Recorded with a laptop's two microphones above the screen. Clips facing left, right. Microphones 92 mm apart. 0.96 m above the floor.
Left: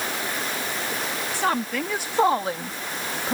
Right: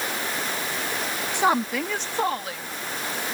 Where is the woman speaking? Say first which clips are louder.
Right 3 dB; 20° right (ahead or behind); by 3.4 s 65° left (ahead or behind).